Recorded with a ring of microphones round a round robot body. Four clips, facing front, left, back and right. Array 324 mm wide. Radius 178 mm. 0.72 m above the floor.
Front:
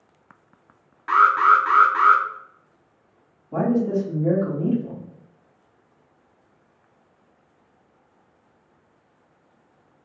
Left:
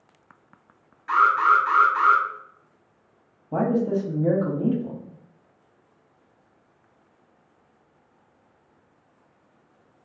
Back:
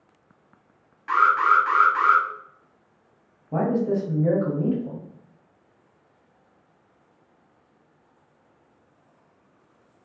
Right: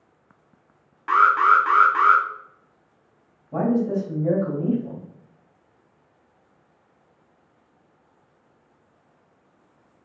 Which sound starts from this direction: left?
A man speaking, at 3.5 s.